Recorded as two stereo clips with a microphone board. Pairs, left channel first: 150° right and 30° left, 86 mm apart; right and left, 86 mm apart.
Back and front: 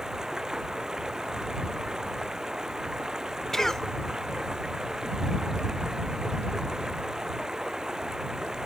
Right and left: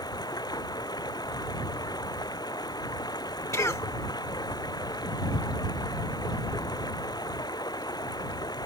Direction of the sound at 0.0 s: 50° right.